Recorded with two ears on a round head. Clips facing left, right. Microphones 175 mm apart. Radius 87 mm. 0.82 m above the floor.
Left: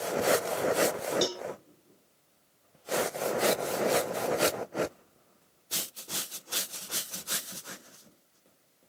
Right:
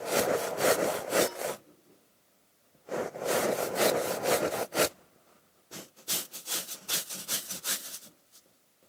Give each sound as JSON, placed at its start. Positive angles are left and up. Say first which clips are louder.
{"t": 1.2, "sound": "a cowbell", "louder": "right 1 dB", "side_deg": 40}